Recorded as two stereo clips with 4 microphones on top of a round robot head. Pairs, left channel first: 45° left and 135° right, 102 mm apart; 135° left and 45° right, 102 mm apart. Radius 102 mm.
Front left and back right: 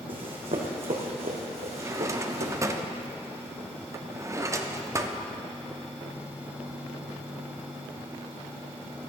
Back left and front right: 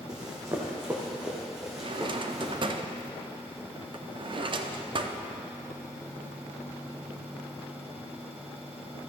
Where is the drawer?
75° right, 0.7 m.